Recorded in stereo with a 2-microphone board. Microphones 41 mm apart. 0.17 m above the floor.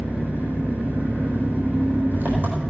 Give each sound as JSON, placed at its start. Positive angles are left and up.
{"t": 0.0, "sound": "an engine running", "side_deg": -55, "distance_m": 4.0}